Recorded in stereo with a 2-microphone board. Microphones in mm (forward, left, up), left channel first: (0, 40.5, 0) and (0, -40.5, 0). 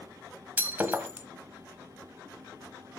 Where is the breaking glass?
20° right (ahead or behind), 1.2 m.